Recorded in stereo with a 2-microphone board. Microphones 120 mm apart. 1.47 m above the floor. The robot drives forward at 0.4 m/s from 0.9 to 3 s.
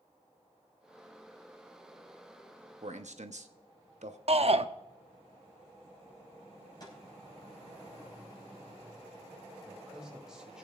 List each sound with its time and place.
2.8 s a man speaking: 75° right (ahead or behind), 0.9 m
4.3 s a shout: 60° right (ahead or behind), 0.7 m
6.8 s a snare drum: 35° left (ahead or behind), 4.5 m
9.6 s a man speaking: 5° right (ahead or behind), 2.5 m